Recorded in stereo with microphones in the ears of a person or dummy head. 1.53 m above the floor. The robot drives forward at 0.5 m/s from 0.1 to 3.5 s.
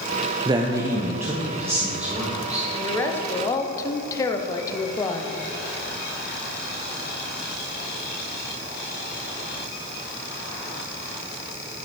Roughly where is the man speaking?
Right.